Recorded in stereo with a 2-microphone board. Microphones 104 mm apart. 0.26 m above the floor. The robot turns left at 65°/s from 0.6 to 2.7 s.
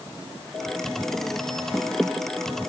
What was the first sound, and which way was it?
Only background noise.